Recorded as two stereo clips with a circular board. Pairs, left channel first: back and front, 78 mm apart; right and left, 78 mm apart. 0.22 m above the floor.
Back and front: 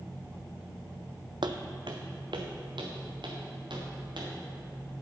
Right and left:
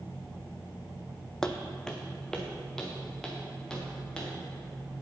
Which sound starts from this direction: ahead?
Footsteps, at 1.4 s.